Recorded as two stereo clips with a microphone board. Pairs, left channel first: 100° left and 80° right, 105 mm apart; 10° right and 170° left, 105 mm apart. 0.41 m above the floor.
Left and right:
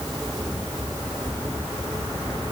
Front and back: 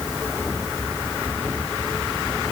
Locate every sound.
Only background noise.